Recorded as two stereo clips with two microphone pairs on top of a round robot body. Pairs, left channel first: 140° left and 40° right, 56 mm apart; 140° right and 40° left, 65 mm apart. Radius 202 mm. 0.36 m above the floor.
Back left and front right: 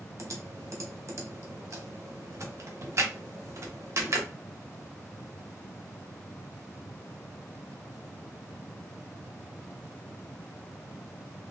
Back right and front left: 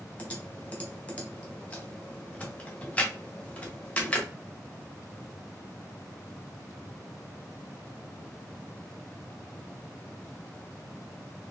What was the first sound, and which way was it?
Typing on a keyboard, 70° right.